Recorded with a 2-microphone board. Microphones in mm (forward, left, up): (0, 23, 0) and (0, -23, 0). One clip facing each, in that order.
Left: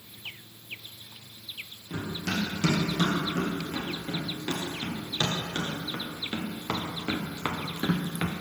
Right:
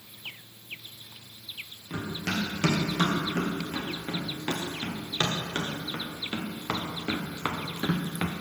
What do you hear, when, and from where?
1.9 s running footsteps: 40° right (ahead or behind), 4 m; by 8.3 s centre (ahead or behind), 1.2 m